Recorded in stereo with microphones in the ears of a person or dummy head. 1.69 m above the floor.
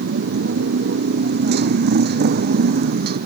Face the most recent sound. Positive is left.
turn(degrees=-50)  # may be behind; listen again after turning